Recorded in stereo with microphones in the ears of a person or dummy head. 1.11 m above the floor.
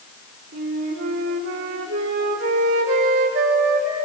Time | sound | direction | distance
0.5 | a flute | 65° right (ahead or behind) | 2.5 m